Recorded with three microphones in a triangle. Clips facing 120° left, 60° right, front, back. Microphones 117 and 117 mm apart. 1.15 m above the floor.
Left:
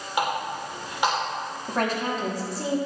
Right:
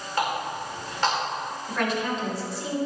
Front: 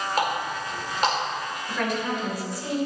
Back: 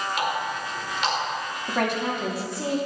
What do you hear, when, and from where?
0.2 s a running tap: 45° left, 3 m
1.7 s a woman speaking: 165° left, 2.5 m